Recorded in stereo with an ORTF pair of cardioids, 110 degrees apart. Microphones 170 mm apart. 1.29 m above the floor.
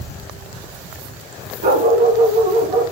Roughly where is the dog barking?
Ahead right.